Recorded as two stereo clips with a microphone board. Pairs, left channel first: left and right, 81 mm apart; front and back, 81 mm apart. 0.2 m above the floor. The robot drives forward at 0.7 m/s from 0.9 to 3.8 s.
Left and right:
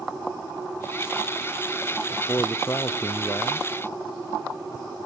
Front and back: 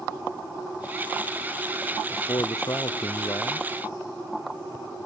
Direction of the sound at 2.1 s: 35° left.